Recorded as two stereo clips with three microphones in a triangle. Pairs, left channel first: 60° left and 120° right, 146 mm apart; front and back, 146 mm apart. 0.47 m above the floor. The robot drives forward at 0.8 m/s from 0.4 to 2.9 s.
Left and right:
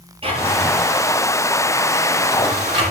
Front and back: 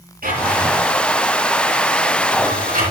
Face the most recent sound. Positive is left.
turn(degrees=-170)